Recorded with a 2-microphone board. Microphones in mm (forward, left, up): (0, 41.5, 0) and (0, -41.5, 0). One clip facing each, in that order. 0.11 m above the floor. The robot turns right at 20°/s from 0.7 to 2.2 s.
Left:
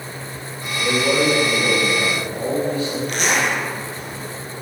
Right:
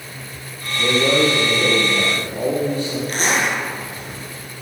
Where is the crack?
I don't hear a crack.